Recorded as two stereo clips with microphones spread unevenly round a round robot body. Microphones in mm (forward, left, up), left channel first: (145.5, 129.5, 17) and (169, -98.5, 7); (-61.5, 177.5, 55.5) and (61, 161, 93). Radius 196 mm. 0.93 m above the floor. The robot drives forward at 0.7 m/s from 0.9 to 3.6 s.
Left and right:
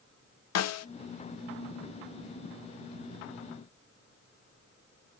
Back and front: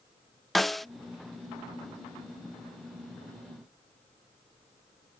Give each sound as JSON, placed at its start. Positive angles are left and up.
{"t": 0.6, "sound": "a snare drum", "azimuth_deg": 85, "distance_m": 0.5}